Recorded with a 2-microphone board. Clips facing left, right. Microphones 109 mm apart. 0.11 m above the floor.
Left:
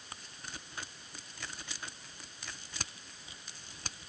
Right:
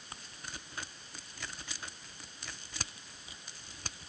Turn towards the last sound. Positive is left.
No sound to turn to.